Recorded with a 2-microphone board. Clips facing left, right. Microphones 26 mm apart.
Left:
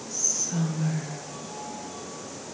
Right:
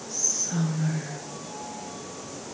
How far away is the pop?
I don't hear a pop.